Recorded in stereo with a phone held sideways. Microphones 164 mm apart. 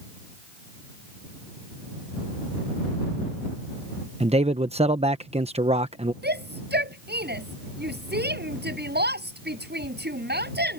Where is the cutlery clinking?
I don't hear cutlery clinking.